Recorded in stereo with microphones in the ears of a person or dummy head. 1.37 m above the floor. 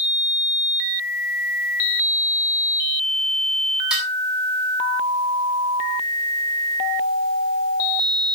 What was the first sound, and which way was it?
Dishes clattering, 5° right (ahead or behind).